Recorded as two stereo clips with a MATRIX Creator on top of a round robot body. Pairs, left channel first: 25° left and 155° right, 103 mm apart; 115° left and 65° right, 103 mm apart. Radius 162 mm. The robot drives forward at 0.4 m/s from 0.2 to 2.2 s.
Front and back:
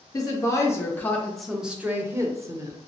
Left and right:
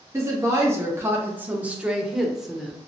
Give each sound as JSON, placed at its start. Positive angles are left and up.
{"t": 0.1, "sound": "a woman speaking", "azimuth_deg": -15, "distance_m": 0.9}